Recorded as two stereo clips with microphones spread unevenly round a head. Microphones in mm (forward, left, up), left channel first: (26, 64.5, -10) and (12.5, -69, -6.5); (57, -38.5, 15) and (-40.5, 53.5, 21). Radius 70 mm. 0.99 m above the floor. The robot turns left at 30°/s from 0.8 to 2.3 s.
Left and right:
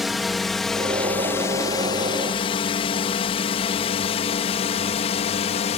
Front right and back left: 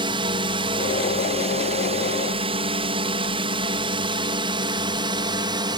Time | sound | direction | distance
0.0 | a drone | 175° left | ?